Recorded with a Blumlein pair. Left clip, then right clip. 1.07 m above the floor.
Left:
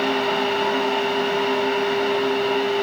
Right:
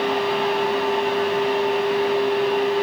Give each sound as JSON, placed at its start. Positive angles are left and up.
{"t": 0.0, "sound": "a fan", "azimuth_deg": 15, "distance_m": 0.8}